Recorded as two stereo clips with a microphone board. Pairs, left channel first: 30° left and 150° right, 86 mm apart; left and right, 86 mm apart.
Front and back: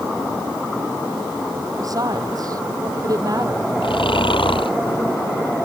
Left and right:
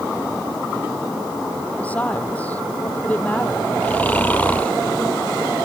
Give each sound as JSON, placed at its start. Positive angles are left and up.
{"t": 1.8, "sound": "a woman speaking", "azimuth_deg": 165}
{"t": 3.8, "sound": "snoring", "azimuth_deg": 20}